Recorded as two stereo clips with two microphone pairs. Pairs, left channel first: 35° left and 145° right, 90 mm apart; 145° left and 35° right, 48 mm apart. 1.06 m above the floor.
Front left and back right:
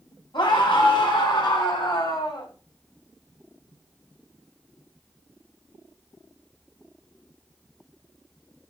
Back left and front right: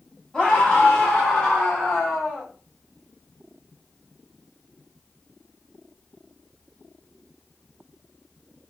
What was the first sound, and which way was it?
A scream, 70° left.